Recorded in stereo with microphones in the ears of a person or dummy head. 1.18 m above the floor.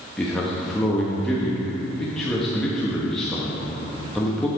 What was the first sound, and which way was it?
A man speaking, centre (ahead or behind).